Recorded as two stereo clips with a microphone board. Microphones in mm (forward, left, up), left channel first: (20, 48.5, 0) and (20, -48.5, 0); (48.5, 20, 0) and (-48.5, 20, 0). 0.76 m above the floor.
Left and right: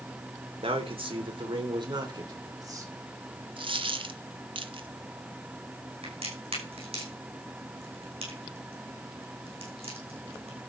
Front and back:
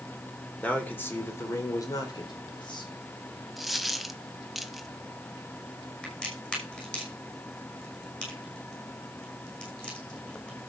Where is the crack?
80° right, 6 m.